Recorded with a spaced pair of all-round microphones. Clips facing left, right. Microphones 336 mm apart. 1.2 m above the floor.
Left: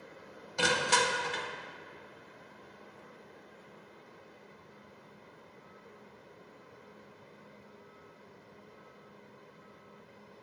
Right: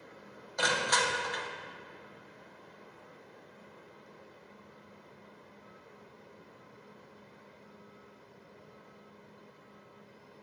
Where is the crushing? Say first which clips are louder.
Left 2 dB; 40° left (ahead or behind), 0.7 m.